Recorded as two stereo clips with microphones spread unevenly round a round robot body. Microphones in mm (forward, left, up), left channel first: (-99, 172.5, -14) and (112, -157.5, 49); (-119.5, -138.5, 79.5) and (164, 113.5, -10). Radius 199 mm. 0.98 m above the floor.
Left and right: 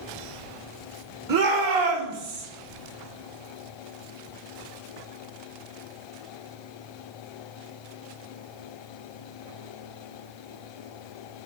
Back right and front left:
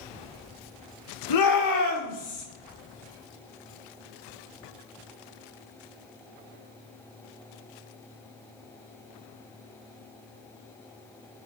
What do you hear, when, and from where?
1.3 s a shout: 100° right, 3 m; by 2.4 s 80° right, 4 m